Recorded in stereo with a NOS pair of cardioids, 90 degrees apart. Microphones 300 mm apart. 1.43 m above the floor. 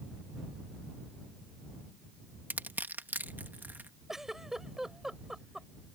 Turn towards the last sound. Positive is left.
turn(degrees=0)